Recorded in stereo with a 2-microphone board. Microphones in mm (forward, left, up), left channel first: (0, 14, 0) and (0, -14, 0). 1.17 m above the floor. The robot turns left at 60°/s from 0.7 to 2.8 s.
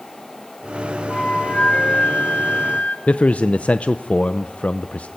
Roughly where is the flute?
Behind left.